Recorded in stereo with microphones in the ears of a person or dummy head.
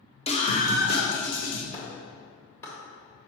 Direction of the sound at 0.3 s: 30° left (ahead or behind).